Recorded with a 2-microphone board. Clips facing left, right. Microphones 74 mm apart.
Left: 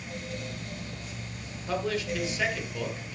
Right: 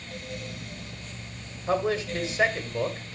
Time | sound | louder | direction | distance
1.7 | a man speaking | right 4 dB | 35° right (ahead or behind) | 1.6 m